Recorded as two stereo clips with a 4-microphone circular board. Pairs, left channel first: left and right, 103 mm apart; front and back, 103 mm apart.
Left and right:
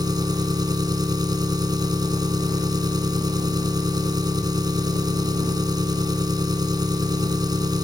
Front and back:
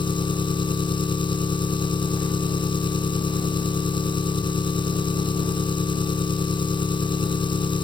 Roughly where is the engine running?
Ahead right.